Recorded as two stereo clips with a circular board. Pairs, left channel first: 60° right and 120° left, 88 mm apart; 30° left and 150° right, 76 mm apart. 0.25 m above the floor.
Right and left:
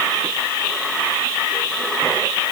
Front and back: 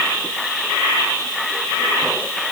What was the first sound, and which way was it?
Only background noise.